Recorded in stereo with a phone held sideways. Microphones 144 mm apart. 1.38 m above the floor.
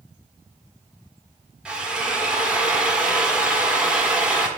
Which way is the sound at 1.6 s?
5° right (ahead or behind).